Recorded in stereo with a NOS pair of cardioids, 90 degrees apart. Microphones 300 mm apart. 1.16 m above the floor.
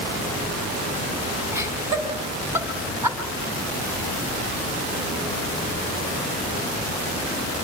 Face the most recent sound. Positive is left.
turn(degrees=-10)